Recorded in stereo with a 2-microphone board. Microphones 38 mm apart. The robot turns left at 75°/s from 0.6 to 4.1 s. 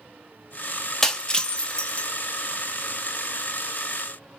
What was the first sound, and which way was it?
Breaking glass, 15° left (ahead or behind).